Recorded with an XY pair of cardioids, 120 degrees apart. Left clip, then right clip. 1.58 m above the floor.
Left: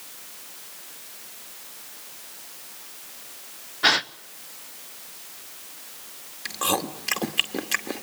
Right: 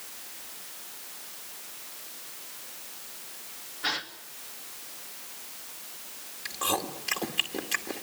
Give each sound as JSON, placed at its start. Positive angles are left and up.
{"t": 3.8, "sound": "a gasp", "azimuth_deg": 65, "distance_m": 0.9}
{"t": 6.5, "sound": "chewing", "azimuth_deg": 30, "distance_m": 2.0}